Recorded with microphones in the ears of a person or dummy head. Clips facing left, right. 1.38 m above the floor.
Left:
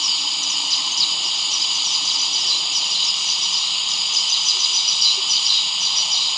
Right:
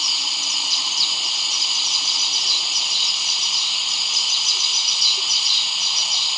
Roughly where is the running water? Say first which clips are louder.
Even; centre.